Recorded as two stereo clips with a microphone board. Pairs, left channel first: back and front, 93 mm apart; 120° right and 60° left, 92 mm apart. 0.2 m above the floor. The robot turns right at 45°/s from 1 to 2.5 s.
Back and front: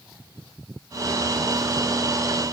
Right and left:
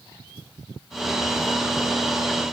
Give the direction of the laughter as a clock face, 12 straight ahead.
I don't hear laughter.